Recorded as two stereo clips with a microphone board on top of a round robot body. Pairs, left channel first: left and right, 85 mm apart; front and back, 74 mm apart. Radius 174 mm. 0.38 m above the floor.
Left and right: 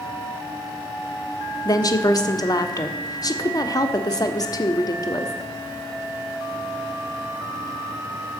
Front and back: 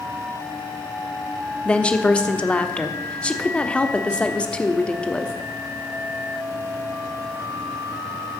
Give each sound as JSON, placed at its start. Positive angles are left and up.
{"t": 1.6, "sound": "a woman speaking", "azimuth_deg": 70, "distance_m": 1.5}